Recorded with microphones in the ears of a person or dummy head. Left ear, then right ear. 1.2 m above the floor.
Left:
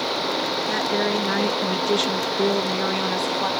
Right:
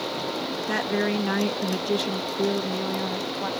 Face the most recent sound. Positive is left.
turn(degrees=75)  # may be behind; listen again after turning